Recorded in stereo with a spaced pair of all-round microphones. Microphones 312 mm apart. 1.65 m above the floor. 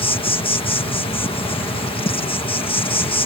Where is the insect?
15° left (ahead or behind).